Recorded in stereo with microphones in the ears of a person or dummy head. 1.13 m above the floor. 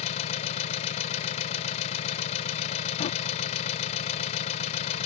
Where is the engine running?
40° left (ahead or behind).